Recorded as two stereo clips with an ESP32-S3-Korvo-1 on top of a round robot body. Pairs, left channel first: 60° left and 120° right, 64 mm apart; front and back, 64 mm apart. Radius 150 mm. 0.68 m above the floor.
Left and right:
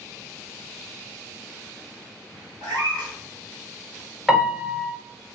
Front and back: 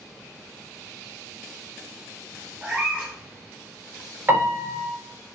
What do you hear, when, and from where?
2.6 s a cat meowing: 105° right, 1.4 m
4.3 s a piano: 165° left, 1.2 m